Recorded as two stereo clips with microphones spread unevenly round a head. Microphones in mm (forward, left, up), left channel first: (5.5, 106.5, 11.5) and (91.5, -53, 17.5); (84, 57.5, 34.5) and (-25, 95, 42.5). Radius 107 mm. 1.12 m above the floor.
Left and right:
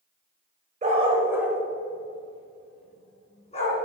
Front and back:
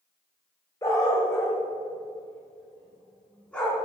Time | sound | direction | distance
0.8 | a dog barking | 85° right | 1.0 m